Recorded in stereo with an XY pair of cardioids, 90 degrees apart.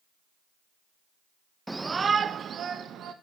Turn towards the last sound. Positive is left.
turn(degrees=-75)